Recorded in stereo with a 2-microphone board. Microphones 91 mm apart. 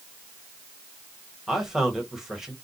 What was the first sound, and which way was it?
A man speaking, 5° right (ahead or behind).